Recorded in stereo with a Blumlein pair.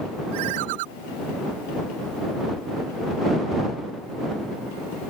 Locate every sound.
0.3 s a ringtone: 50° right